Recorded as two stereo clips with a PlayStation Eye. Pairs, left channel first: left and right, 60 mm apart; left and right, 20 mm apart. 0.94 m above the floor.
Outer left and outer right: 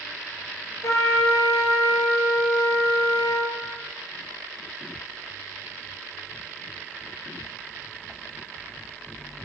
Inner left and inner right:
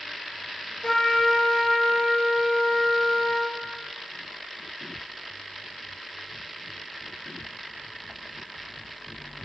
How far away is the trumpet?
About 2.5 m.